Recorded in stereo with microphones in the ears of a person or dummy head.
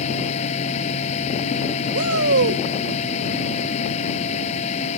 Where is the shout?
75° right (ahead or behind).